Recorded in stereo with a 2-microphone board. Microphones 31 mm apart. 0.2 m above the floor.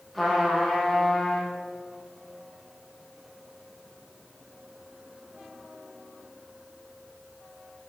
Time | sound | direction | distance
0.1 | a trumpet | centre (ahead or behind) | 4 m